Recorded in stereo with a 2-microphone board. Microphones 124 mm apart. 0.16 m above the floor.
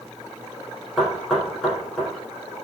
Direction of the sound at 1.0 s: Centre (ahead or behind).